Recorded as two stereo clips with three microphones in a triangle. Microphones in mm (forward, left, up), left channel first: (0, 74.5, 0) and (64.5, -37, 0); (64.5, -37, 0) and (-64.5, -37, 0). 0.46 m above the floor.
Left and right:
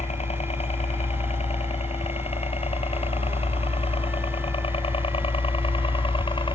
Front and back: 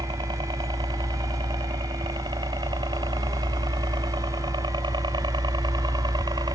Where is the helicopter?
135° left; by 6.5 s 140° left.